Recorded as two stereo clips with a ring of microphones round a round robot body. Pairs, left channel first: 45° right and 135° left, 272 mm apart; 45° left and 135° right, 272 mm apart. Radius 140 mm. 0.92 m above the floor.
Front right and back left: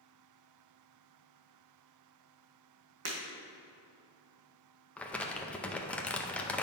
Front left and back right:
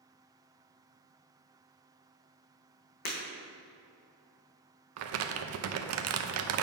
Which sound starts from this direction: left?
Breaking glass, at 3.0 s.